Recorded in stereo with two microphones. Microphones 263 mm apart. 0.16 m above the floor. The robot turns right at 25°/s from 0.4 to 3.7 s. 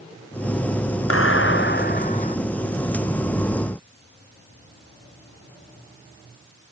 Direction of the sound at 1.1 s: 125° left.